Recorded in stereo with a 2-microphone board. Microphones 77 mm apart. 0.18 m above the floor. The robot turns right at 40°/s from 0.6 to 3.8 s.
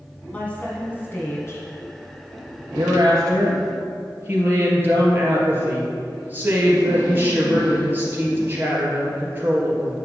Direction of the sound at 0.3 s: 35° left.